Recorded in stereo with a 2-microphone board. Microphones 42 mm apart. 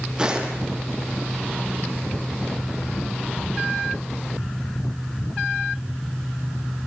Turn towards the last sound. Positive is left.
turn(degrees=-20)  # may be behind; listen again after turning